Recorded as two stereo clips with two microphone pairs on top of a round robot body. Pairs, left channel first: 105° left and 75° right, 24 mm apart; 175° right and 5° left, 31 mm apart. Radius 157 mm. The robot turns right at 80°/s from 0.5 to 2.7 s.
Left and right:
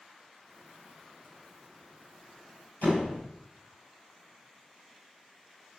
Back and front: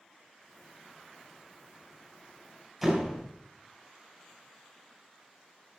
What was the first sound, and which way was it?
A door slam, 90° left.